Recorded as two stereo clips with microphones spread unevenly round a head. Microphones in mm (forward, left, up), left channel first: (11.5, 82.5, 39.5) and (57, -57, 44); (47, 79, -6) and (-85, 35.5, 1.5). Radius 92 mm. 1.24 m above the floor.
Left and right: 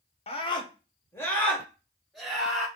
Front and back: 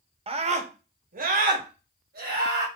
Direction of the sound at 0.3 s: 155° left.